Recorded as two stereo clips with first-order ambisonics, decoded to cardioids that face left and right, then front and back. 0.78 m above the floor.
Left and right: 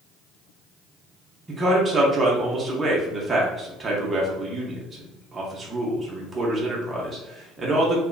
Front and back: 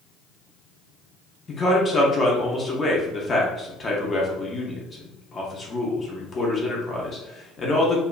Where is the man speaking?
35° right, 0.6 m.